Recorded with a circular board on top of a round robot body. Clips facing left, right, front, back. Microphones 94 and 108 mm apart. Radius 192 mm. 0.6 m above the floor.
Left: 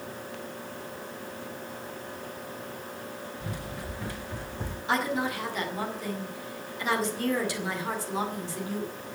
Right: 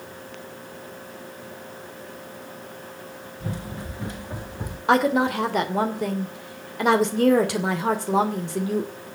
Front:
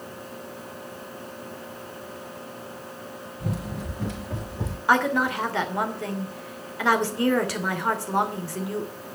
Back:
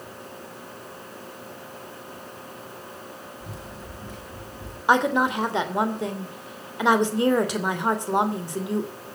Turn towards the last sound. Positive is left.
turn(degrees=-110)